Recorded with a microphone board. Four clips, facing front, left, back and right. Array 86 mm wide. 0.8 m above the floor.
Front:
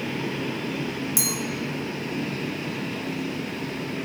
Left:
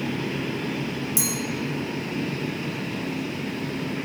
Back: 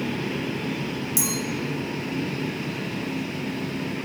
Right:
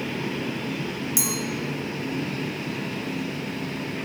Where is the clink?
40° right, 1.1 m.